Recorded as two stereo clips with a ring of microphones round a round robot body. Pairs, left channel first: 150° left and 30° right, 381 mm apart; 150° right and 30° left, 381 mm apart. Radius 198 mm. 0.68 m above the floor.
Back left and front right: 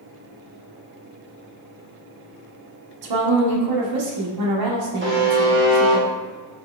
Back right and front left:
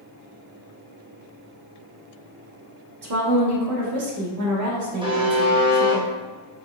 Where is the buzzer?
35° right, 1.2 m.